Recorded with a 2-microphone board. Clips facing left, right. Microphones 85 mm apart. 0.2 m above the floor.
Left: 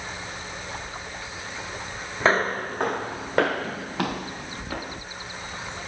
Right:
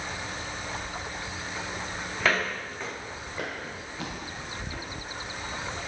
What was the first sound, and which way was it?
Footsteps, 30° left (ahead or behind).